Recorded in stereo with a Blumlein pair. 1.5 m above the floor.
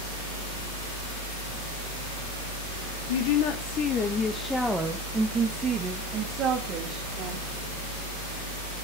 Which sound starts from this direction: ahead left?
A woman speaking, at 3.1 s.